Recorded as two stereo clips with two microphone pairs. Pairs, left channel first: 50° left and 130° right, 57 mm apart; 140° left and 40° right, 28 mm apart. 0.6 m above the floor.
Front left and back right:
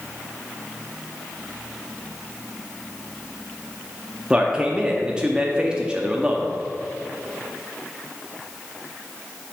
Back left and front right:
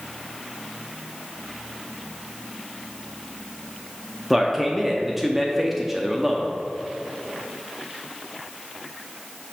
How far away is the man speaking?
About 0.5 m.